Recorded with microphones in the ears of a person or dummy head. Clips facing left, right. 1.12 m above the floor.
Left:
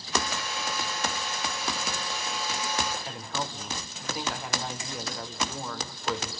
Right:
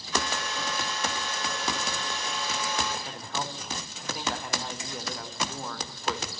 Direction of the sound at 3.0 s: Centre (ahead or behind).